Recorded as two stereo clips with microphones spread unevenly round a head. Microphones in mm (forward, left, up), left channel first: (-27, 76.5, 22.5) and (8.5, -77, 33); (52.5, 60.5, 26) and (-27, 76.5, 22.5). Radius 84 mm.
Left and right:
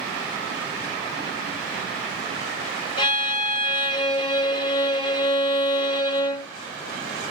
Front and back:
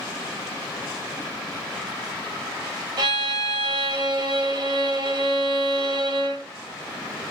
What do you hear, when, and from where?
3.0 s a violin: 160° left, 1.5 m